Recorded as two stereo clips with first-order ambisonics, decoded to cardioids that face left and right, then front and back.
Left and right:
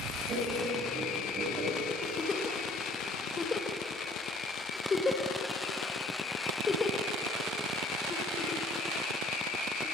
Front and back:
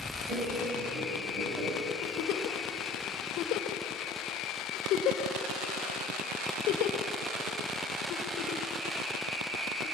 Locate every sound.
0.3 s laughter: 145° right, 4.5 m; by 1.7 s 135° right, 4 m
2.0 s a giggle: 20° left, 2 m